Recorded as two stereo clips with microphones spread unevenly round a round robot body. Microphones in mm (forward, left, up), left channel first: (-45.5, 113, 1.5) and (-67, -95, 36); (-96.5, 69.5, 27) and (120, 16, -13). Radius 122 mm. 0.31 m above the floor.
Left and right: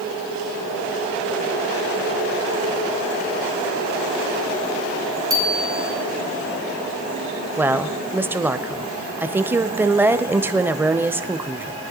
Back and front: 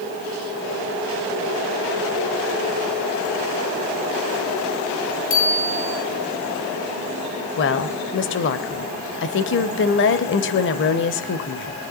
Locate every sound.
5.3 s a bicycle bell: 170° right, 6 m
7.6 s a woman speaking: 175° left, 1.2 m